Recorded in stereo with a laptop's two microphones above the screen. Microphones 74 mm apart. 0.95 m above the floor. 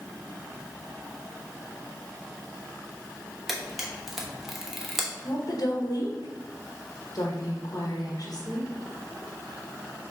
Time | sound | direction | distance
3.5 | a camera shutter | 5° right (ahead or behind) | 1.0 m
5.2 | a woman speaking | 55° left (ahead or behind) | 1.2 m